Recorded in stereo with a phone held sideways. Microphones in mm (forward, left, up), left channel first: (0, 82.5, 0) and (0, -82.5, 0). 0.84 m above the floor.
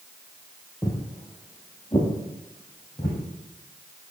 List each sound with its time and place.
0.8 s footsteps: 15° left (ahead or behind), 1.2 m; by 3.2 s 25° left (ahead or behind), 2.5 m